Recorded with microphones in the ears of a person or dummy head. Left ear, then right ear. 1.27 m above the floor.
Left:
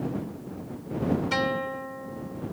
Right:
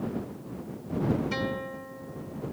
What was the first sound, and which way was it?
A guitar, 30° left (ahead or behind).